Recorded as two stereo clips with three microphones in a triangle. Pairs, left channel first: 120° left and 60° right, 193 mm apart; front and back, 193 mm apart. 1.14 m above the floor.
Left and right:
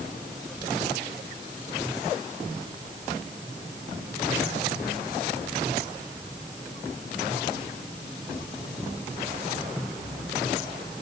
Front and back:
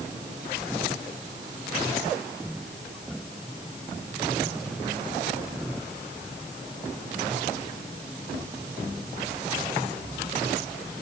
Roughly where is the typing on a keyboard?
No typing on a keyboard in this recording.